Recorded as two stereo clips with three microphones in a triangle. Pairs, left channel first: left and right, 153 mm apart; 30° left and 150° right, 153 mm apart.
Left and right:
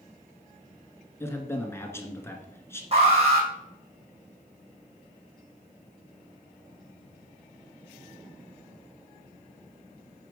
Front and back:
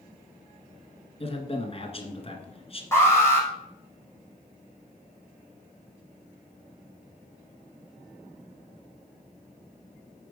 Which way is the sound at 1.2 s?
25° left.